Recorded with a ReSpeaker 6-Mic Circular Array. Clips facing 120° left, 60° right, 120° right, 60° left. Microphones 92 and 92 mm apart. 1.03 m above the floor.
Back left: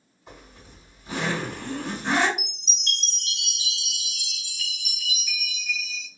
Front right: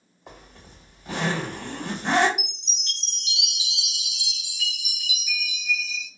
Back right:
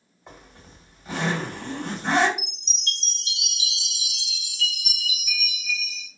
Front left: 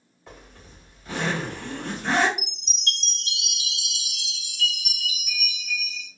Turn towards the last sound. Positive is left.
turn(degrees=20)